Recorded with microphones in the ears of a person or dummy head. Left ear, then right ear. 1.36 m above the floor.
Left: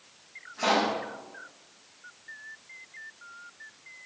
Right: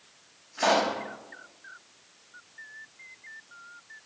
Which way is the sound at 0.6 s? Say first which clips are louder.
Right 1 dB; 75° right (ahead or behind).